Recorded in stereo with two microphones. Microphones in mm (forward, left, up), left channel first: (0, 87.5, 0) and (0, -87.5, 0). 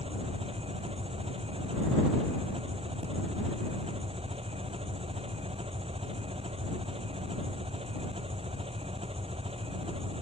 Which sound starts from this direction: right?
An engine running, at 0.0 s.